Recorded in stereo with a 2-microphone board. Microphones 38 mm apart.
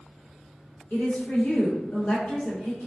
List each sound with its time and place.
0.9 s a woman speaking: 85° left, 1.2 m